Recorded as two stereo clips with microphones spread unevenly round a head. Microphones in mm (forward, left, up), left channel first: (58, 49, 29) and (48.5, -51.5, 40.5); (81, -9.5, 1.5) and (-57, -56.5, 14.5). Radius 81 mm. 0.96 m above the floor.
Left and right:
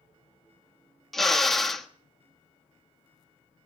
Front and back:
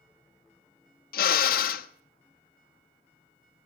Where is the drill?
5° right, 1.2 m.